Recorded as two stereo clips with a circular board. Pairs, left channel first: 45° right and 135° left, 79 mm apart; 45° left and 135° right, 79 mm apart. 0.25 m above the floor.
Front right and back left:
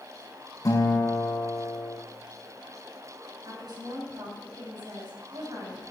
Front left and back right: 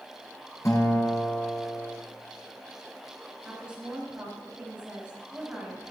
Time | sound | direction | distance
0.7 | a guitar | 5° right | 5 m
3.5 | a woman speaking | 150° left | 6 m